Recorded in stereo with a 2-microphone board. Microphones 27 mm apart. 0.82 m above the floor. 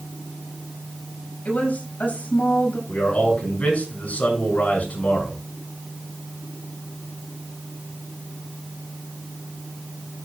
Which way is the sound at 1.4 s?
70° left (ahead or behind).